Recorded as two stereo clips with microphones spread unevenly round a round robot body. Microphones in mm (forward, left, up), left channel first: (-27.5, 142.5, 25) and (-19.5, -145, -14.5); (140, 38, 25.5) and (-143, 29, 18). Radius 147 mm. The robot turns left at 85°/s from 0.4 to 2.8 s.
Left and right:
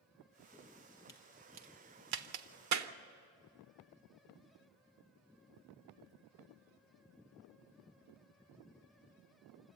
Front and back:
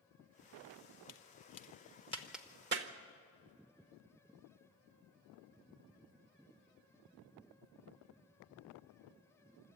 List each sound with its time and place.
1.1 s a crack: 15° left, 0.9 m; by 2.9 s 130° right, 0.9 m